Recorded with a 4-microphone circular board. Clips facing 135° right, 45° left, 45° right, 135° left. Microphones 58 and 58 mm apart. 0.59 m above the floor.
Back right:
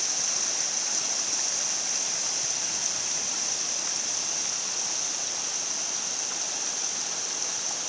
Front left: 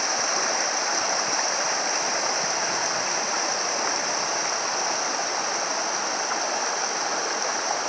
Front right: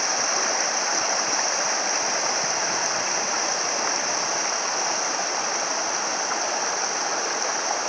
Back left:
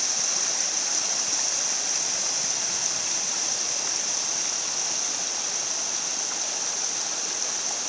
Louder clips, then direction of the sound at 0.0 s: Front left 12 dB, front right 10 dB; straight ahead.